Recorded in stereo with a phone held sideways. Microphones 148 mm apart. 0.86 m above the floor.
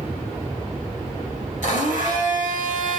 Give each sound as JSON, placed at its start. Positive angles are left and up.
{"t": 1.6, "sound": "a blender", "side_deg": 65, "distance_m": 4.5}